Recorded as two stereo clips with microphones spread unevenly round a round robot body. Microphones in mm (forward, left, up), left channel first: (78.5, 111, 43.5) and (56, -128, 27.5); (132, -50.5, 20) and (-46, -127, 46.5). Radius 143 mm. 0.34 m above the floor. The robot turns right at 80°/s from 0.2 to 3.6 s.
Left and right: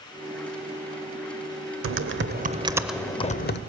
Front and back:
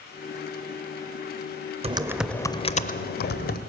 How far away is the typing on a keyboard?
About 0.6 m.